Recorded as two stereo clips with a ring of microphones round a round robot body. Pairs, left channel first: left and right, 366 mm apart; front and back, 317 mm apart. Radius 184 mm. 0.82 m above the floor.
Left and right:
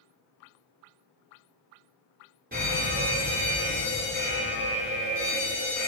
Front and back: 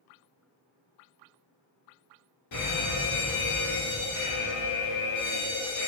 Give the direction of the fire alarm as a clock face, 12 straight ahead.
1 o'clock.